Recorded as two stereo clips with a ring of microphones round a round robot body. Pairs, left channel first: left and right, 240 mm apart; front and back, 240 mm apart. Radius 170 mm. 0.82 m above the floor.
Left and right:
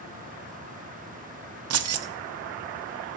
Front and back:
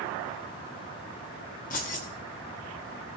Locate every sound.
1.7 s keys jangling: 65° right, 0.6 m